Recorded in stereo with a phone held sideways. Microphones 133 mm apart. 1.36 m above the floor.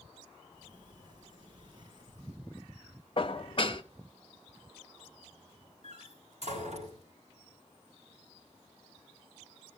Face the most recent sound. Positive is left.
turn(degrees=-60)  # may be behind; listen again after turning